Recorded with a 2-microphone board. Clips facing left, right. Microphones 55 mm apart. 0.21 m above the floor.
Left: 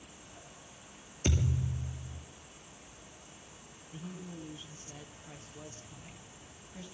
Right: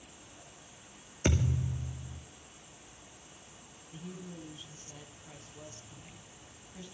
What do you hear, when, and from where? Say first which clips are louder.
0.0 s an insect: left 1 dB; 35° left (ahead or behind), 8.5 m
1.2 s a thud: right 2 dB; 50° right (ahead or behind), 2 m
3.9 s a woman speaking: left 1 dB; 10° left (ahead or behind), 1.8 m